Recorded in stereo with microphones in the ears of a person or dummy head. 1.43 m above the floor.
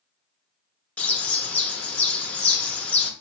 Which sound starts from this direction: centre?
A bird, at 1.0 s.